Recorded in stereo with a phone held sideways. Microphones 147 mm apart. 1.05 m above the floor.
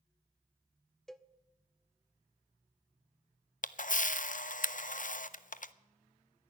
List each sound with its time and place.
1.1 s a cowbell: 5° left (ahead or behind), 0.6 m
3.6 s a camera shutter: 65° left (ahead or behind), 0.5 m